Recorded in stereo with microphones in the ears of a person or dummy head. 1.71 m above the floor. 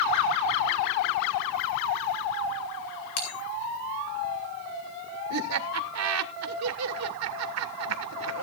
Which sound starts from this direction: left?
A bell, at 3.2 s.